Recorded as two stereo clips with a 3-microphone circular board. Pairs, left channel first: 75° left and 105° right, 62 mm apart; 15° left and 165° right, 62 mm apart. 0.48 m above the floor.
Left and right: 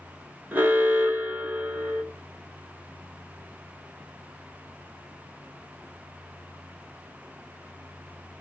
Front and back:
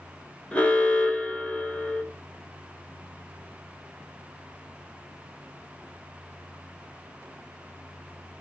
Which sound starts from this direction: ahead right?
An alarm, at 0.5 s.